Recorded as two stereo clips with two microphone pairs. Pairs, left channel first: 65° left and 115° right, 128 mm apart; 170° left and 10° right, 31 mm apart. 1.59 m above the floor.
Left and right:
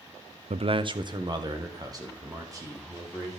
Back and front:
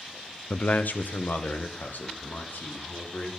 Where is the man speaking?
145° right, 0.6 m; by 3.3 s straight behind, 3.5 m.